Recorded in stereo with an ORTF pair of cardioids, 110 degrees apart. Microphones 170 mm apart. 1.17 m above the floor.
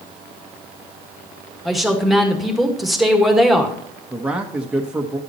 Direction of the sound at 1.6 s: Straight ahead.